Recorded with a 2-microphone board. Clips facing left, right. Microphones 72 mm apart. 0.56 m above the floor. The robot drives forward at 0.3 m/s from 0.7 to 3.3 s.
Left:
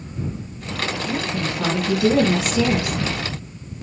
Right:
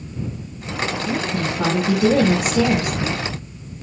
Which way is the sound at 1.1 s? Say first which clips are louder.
Right 2 dB; 45° right (ahead or behind).